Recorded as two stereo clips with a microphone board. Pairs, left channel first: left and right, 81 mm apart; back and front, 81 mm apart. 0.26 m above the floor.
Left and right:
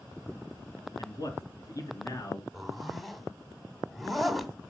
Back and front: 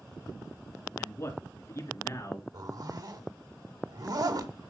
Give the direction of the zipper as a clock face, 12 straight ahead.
12 o'clock.